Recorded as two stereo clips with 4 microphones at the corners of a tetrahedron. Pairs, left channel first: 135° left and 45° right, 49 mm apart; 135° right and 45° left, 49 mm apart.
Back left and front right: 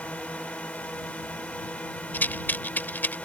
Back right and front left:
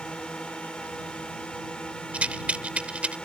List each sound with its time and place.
0.0 s a drone: 165° left
2.1 s a rattle: 100° left